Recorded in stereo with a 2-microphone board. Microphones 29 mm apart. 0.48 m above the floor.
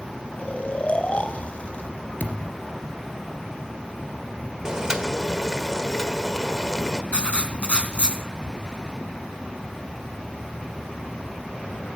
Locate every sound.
0.4 s snoring: 50° left (ahead or behind), 1.9 m
2.2 s a thud: 75° left (ahead or behind), 2.5 m
4.7 s boiling: 20° right (ahead or behind), 1.7 m
7.1 s writing: 40° left (ahead or behind), 3 m